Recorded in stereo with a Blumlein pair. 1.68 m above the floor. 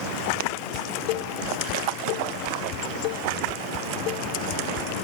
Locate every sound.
0.7 s dishes clattering: 40° left